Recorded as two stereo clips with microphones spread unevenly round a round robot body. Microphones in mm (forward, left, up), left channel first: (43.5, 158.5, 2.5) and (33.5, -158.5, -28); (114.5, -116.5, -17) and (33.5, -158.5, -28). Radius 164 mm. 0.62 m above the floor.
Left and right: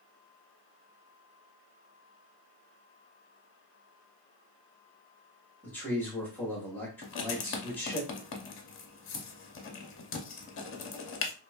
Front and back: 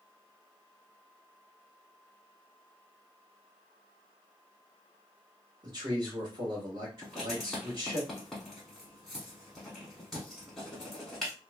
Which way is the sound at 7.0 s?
105° left.